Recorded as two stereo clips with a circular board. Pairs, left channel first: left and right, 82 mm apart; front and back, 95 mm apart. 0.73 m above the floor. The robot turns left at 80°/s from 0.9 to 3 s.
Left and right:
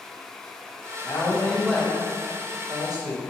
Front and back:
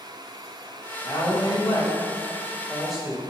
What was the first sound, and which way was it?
A woman speaking, 55° left.